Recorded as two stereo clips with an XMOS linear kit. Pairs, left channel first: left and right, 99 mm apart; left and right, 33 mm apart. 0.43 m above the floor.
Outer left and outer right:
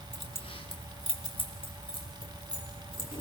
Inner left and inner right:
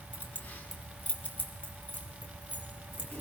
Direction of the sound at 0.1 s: 75° left (ahead or behind).